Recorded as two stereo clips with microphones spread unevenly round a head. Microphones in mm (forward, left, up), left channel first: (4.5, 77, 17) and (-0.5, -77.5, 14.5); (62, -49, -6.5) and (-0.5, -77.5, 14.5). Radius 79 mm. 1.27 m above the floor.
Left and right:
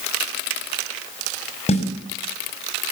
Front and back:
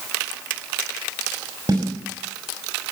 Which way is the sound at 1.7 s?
140° left.